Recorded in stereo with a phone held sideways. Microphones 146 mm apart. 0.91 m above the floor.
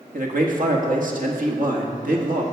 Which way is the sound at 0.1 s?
70° right (ahead or behind).